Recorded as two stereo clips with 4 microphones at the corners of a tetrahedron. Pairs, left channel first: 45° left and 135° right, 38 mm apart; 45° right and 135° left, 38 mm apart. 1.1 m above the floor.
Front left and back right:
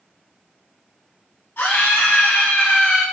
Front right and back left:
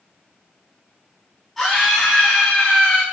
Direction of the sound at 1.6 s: 35° left.